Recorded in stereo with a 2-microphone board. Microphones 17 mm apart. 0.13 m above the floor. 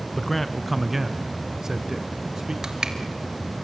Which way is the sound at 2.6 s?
45° right (ahead or behind).